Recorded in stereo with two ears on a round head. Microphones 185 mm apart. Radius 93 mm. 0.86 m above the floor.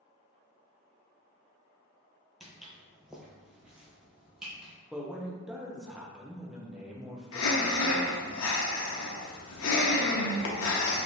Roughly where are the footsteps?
Centre.